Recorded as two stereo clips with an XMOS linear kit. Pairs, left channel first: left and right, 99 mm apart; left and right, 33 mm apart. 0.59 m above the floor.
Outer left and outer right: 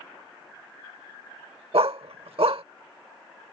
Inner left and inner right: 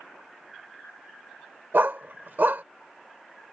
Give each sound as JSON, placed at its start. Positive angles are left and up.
{"t": 1.7, "sound": "a dog barking", "side_deg": -75}